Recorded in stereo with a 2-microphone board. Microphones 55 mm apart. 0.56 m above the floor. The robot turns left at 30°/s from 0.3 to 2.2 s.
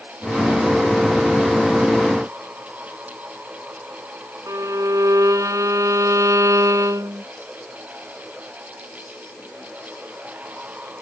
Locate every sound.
4.5 s a violin: 80° right